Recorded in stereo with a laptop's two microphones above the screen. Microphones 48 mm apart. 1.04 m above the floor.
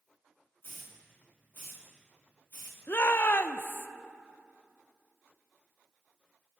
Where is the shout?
50° left (ahead or behind), 0.7 m.